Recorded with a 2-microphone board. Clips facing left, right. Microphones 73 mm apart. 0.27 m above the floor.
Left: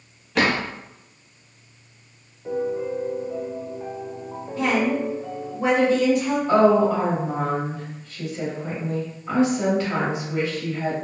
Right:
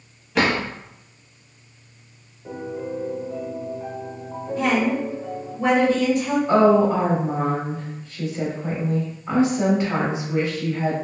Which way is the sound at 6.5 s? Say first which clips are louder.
Right 1 dB; 20° right (ahead or behind).